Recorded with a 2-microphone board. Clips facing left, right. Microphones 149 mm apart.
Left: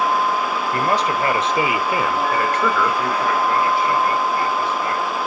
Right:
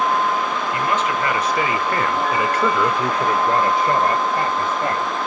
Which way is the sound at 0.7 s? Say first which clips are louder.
Left 2 dB; 40° left (ahead or behind).